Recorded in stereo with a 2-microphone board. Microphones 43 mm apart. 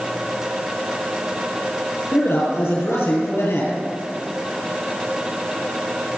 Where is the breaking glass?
I don't hear breaking glass.